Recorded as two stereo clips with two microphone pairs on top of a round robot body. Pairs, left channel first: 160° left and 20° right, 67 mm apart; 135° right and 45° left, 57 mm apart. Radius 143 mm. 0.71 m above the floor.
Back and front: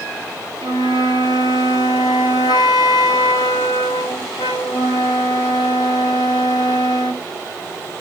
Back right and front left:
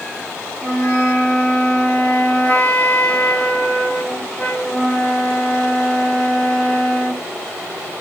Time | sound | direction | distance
0.6 | a flute | 160° left | 1.5 m